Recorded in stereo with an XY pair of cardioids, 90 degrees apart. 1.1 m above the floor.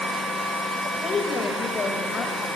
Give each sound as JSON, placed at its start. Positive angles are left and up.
{"t": 0.8, "sound": "a woman speaking", "azimuth_deg": 45, "distance_m": 4.5}